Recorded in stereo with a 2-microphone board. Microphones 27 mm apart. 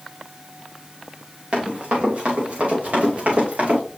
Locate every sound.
1.5 s running footsteps: 40° right (ahead or behind), 4 m; by 3.8 s 50° right (ahead or behind), 5 m